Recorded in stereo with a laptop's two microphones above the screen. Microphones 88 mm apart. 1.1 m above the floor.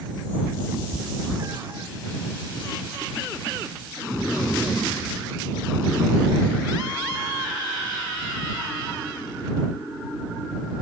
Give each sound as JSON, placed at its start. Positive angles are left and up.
{"t": 0.7, "sound": "a cat meowing", "side_deg": -40}